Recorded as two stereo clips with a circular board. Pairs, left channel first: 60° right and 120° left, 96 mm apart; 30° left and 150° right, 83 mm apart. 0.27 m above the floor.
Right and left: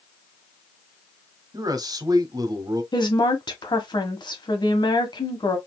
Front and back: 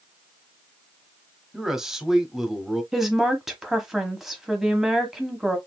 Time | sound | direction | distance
1.5 | a man speaking | 125° left | 1.1 m
2.9 | a woman speaking | 65° right | 1.4 m